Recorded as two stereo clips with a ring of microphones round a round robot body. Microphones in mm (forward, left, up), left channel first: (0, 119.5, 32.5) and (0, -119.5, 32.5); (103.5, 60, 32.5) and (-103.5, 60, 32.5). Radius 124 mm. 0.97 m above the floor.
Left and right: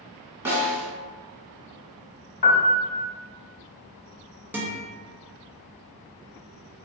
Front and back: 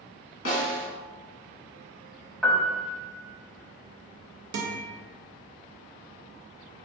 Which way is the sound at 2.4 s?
90° left.